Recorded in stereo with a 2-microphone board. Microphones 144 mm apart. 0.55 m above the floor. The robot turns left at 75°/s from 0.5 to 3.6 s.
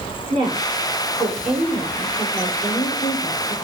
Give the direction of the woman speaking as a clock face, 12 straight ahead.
1 o'clock.